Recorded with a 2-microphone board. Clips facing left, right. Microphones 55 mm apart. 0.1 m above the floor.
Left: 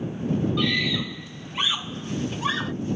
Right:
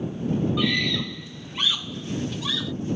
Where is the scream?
Centre (ahead or behind); by 2.7 s 35° left (ahead or behind).